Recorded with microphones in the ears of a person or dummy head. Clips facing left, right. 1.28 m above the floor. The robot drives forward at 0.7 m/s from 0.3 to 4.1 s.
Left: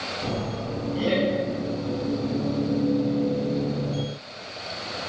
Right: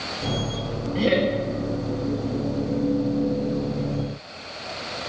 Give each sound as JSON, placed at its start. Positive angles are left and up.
{"t": 0.9, "sound": "laughter", "side_deg": -30, "distance_m": 1.8}